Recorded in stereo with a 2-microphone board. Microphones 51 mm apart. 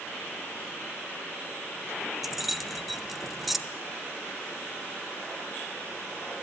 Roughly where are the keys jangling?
Centre.